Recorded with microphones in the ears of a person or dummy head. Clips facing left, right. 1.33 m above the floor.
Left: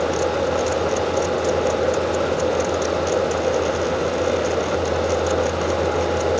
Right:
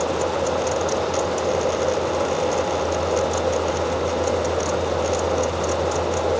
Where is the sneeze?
No sneeze in this recording.